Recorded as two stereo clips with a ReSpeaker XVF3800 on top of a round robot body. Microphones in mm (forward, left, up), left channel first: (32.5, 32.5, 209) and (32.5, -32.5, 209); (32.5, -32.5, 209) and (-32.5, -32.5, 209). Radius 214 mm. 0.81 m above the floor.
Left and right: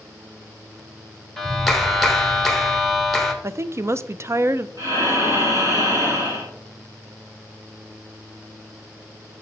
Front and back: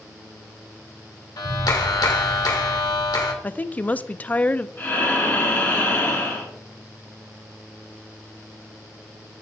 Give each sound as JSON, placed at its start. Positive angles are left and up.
{"t": 1.4, "sound": "a clap", "azimuth_deg": 5, "distance_m": 1.4}
{"t": 3.4, "sound": "a woman speaking", "azimuth_deg": -60, "distance_m": 0.5}
{"t": 4.8, "sound": "breathing", "azimuth_deg": -60, "distance_m": 2.0}